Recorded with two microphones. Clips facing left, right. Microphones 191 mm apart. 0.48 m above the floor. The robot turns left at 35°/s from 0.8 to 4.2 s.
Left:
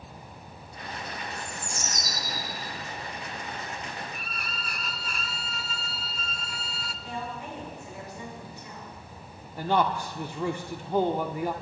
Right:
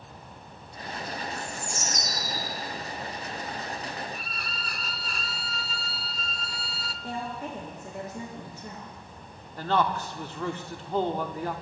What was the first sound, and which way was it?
A bird, 135° right.